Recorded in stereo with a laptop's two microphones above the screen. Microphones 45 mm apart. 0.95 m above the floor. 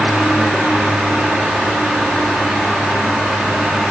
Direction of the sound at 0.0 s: 30° right (ahead or behind).